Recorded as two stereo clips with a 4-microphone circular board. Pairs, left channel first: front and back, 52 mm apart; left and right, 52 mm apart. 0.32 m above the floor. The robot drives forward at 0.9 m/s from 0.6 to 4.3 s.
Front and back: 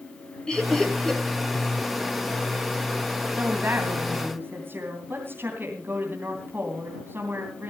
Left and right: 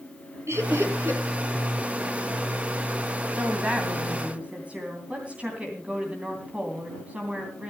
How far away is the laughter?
About 3.5 m.